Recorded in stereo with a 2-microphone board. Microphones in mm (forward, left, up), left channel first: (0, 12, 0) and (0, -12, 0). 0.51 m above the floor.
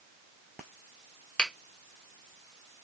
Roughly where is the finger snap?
Left.